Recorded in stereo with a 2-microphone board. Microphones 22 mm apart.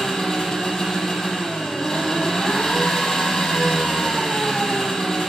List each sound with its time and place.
0.0 s an engine running: 30° left (ahead or behind), 7 m